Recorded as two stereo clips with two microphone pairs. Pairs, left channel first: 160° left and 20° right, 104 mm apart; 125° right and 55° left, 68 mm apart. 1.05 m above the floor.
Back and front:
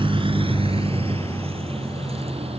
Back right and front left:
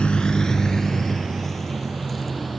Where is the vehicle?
50° right; by 2.6 s 35° right.